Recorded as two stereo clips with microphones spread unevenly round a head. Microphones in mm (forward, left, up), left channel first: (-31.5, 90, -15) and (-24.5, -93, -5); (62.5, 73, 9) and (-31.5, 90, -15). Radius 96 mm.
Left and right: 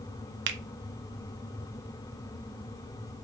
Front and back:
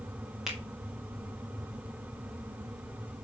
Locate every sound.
0.5 s a finger snap: 110° right, 1.3 m